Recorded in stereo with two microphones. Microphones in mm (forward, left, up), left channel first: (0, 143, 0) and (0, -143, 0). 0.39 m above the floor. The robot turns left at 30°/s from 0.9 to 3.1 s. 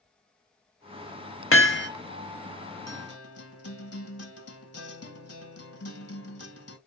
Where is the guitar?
65° left (ahead or behind), 1.0 m; by 6.8 s 60° left (ahead or behind), 1.0 m.